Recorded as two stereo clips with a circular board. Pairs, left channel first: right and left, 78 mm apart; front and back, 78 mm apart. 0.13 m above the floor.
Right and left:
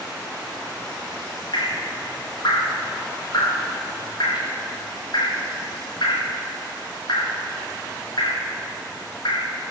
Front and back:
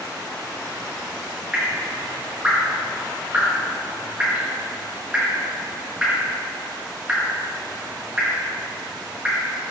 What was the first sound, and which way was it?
Dripping, 105° right.